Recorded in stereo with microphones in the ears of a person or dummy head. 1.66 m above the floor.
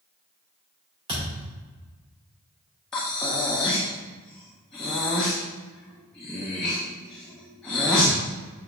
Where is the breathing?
5° left (ahead or behind), 0.8 m.